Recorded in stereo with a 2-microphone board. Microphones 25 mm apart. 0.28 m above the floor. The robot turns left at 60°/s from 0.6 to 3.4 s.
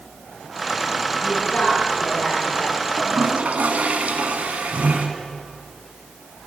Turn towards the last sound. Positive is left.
turn(degrees=-65)  # may be behind; listen again after turning